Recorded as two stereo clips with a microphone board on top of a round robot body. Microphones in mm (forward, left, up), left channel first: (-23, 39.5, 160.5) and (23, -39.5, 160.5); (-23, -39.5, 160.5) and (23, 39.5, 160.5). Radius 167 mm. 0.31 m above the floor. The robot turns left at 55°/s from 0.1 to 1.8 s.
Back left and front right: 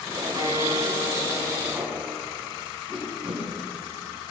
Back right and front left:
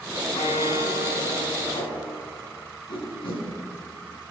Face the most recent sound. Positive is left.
turn(degrees=-140)